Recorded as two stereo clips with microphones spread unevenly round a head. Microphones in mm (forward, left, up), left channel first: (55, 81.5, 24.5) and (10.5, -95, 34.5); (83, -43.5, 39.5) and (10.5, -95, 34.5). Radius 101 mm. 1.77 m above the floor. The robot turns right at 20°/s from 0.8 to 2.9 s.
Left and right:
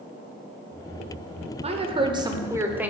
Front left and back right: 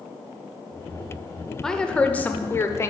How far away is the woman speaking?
About 1.0 m.